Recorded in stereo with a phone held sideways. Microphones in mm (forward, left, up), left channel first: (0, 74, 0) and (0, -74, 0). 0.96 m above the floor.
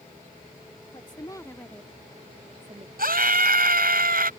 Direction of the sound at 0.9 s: 35° left (ahead or behind).